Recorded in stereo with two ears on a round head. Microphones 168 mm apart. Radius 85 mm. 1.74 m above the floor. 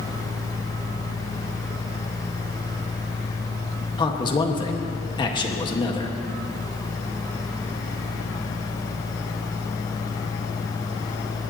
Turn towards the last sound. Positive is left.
turn(degrees=25)  # may be behind; listen again after turning